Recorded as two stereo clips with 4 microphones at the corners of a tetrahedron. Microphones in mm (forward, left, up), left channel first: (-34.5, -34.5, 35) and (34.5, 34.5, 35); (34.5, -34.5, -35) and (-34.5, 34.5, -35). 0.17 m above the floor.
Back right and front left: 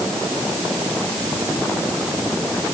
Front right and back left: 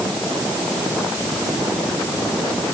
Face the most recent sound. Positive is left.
No sound to turn to.